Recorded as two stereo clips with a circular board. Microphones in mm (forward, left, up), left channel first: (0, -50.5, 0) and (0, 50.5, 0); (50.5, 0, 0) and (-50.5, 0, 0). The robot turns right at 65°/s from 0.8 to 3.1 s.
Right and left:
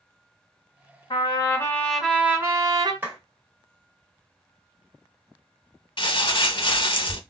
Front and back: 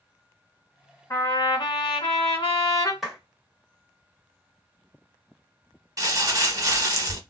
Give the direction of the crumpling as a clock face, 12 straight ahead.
4 o'clock.